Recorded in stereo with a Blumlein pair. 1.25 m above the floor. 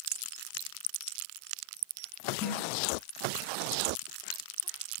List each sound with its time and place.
2.4 s a snare drum: 25° left, 9.5 m